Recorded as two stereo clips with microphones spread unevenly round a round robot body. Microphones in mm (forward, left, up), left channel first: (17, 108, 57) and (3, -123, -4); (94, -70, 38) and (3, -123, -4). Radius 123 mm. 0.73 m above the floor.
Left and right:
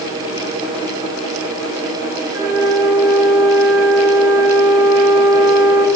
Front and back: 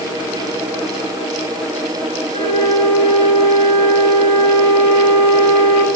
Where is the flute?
15° right, 0.8 m.